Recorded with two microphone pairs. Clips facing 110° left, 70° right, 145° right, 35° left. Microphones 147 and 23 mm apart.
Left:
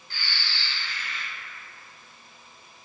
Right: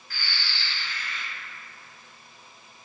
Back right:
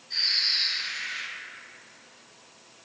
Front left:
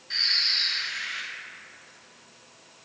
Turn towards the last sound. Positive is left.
turn(degrees=50)